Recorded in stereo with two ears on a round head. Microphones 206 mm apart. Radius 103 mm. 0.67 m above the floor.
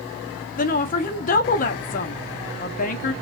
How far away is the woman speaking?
About 0.7 m.